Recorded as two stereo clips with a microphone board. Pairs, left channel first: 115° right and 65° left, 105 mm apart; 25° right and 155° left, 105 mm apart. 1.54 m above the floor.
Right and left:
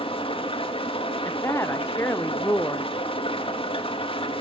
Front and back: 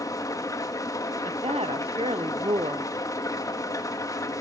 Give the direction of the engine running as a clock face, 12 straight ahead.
3 o'clock.